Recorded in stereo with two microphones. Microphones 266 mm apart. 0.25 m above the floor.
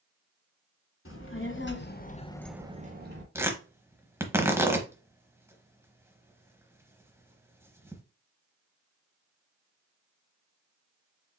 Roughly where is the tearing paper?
Centre.